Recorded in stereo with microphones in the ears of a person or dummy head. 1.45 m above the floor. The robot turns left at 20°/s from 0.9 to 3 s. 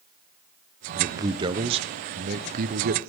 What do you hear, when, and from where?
0.9 s a man speaking: 20° right, 0.7 m; by 3.1 s 65° right, 0.7 m